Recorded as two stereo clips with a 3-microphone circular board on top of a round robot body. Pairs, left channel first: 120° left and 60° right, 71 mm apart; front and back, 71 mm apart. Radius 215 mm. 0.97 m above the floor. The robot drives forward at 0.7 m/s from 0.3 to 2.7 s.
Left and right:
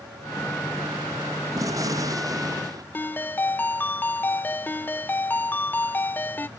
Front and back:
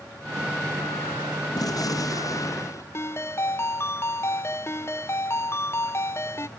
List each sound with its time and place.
1.6 s a gunshot: 25° right; by 2.8 s 40° right
2.9 s a ringtone: 55° left